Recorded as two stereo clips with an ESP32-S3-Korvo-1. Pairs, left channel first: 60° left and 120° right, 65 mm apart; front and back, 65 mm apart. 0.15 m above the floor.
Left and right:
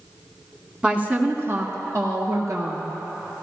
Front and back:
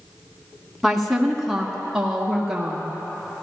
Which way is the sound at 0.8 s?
85° right.